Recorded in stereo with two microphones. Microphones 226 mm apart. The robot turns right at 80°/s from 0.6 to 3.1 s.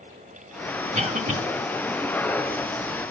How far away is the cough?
About 1.2 m.